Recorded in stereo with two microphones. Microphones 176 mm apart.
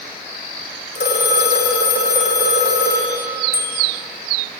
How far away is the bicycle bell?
About 7 m.